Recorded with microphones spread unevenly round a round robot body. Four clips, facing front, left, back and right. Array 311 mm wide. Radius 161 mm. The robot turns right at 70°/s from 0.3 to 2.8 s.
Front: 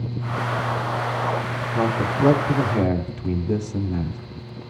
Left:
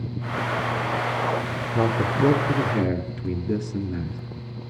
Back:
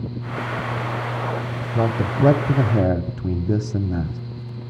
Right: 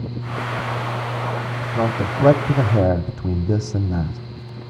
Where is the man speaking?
165° left, 0.8 m; by 4.2 s 120° right, 0.8 m.